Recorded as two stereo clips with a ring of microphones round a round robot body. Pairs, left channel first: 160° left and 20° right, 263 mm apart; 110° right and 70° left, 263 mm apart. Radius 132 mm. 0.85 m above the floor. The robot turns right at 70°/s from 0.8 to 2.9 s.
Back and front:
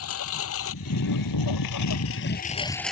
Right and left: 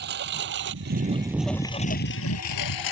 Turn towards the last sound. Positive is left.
turn(degrees=-115)